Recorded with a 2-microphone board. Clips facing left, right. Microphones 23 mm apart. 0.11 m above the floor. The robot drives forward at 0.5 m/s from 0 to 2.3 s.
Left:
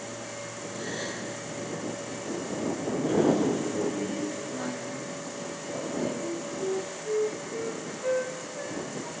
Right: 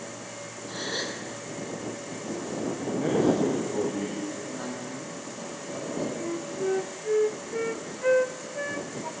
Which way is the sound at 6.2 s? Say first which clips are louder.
Right 2 dB; 50° right (ahead or behind).